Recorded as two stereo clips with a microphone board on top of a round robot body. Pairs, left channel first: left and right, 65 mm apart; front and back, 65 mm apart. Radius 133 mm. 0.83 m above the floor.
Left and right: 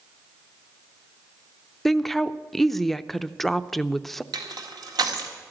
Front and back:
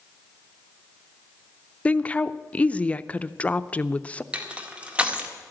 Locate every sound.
1.9 s a woman speaking: 5° left, 0.7 m
4.3 s crushing: 110° right, 1.8 m